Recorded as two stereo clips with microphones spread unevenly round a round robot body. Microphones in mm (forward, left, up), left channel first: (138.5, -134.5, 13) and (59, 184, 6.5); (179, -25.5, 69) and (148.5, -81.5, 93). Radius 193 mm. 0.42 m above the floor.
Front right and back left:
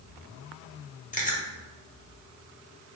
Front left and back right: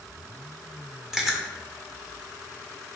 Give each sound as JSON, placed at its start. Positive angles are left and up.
{"t": 1.1, "sound": "chewing", "azimuth_deg": -15, "distance_m": 1.9}